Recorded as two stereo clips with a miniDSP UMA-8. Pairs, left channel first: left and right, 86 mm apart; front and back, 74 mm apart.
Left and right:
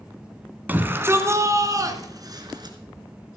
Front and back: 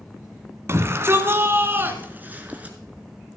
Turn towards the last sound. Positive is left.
turn(degrees=-115)